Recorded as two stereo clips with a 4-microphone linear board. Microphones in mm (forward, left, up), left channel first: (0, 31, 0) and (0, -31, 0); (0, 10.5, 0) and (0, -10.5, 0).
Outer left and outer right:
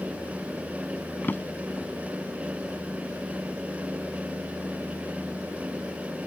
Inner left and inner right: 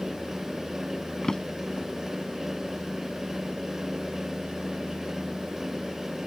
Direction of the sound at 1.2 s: 35° left (ahead or behind).